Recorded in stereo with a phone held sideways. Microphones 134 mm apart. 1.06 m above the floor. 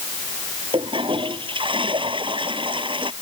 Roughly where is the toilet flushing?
Right.